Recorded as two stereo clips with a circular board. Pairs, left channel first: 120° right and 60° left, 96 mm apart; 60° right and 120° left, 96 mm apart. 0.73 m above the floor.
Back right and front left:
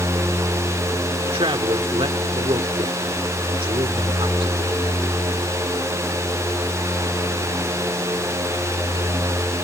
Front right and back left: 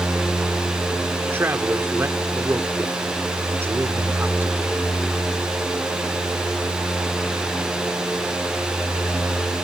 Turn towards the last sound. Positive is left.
turn(degrees=60)